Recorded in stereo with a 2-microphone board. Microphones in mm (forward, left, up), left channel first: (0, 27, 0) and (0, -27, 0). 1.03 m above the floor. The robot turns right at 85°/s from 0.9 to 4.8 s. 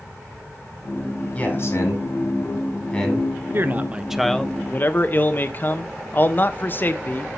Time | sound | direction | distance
1.3 | a man speaking | 20° left (ahead or behind) | 5.5 m
3.5 | a man speaking | 55° right | 1.0 m